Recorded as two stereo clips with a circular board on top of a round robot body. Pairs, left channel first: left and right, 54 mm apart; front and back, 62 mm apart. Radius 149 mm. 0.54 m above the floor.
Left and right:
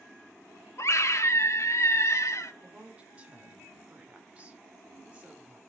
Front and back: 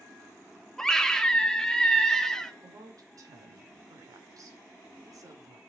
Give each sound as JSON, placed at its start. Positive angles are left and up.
{"t": 0.8, "sound": "a scream", "azimuth_deg": 80, "distance_m": 1.3}
{"t": 2.6, "sound": "a woman speaking", "azimuth_deg": -155, "distance_m": 2.5}